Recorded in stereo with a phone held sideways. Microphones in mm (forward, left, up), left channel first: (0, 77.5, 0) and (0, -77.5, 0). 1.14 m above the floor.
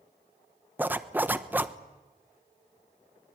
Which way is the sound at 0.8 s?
10° right (ahead or behind).